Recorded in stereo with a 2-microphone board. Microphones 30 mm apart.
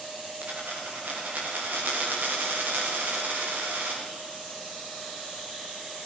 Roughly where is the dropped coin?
Right.